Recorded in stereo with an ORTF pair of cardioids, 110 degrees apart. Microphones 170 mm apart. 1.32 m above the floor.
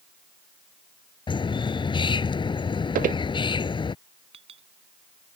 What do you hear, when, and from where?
1.3 s a bird: 30° left
3.0 s footsteps: 60° right
4.3 s a clink: 35° right